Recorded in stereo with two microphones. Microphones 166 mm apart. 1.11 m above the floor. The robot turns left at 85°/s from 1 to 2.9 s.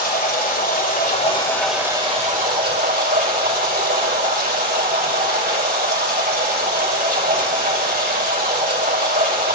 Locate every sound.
0.0 s running water: 60° left, 2.5 m; by 9.5 s 100° right, 2.5 m